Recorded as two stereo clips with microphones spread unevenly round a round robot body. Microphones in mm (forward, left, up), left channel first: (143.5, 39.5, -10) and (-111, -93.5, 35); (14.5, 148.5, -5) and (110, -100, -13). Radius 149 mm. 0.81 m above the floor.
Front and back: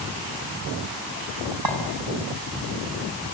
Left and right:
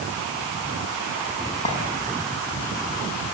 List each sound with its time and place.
1.6 s a clink: 175° right, 5 m